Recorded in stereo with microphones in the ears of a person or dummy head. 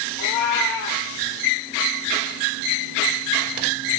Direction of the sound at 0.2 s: 70° left (ahead or behind).